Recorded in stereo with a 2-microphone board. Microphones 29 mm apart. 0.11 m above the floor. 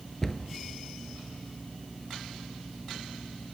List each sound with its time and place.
0.2 s a cupboard door: 15° left (ahead or behind), 1.1 m